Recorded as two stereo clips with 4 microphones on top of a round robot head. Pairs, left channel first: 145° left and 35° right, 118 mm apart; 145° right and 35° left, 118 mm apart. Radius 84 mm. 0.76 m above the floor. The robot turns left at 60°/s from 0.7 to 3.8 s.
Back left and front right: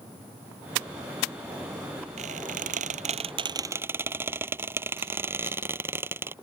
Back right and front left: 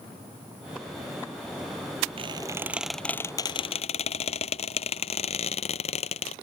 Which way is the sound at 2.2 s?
10° right.